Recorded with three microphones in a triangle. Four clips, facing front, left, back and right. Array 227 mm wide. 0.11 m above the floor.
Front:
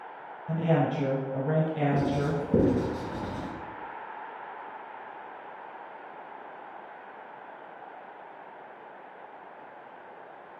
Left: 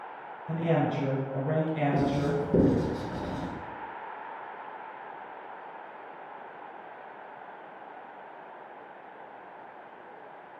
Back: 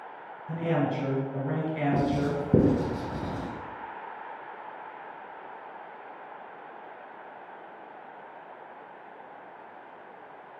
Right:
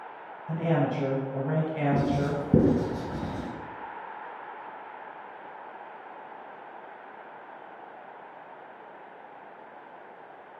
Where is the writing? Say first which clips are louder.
Even, back 1 dB; 130° right, 1.6 m.